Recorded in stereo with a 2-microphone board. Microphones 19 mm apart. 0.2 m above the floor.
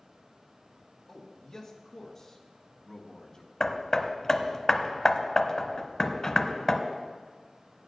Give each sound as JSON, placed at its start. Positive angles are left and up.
{"t": 1.1, "sound": "a man speaking", "side_deg": 15, "distance_m": 3.0}
{"t": 3.6, "sound": "hammering", "side_deg": 35, "distance_m": 0.9}